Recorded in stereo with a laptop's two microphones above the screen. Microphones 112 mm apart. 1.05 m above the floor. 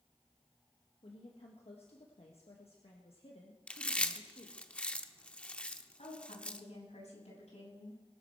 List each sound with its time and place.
1.0 s a woman speaking: 60° left (ahead or behind), 1.7 m
3.7 s chewing: 10° left (ahead or behind), 0.7 m
6.0 s a woman speaking: 85° left, 7.5 m